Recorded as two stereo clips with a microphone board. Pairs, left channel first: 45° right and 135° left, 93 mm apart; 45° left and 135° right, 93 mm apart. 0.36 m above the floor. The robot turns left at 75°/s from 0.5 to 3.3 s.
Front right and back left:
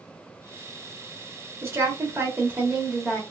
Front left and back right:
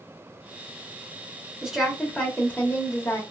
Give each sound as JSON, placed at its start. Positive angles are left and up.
{"t": 1.6, "sound": "a woman speaking", "azimuth_deg": 155, "distance_m": 0.9}